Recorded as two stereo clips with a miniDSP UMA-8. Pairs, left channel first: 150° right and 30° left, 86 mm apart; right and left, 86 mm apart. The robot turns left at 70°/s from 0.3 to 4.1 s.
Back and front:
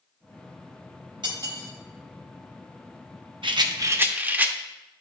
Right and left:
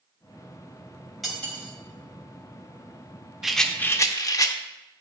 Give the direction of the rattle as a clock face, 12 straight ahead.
12 o'clock.